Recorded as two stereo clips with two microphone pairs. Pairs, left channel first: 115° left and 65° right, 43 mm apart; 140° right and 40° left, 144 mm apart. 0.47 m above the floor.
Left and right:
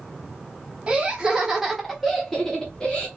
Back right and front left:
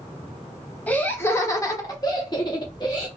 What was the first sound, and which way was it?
Laughter, 70° right.